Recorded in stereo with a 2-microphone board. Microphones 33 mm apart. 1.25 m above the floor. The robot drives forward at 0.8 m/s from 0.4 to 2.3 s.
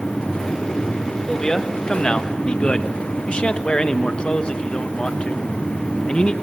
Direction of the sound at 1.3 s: 20° left (ahead or behind).